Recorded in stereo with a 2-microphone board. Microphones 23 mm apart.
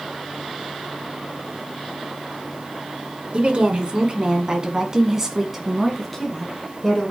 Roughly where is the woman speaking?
Right.